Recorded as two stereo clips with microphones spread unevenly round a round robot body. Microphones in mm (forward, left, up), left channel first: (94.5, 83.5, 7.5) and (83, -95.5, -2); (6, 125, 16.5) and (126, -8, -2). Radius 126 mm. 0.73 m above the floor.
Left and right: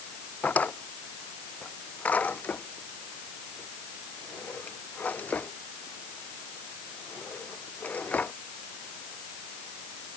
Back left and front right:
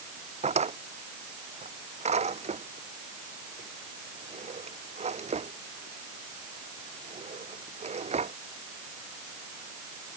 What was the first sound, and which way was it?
A drawer, 5° left.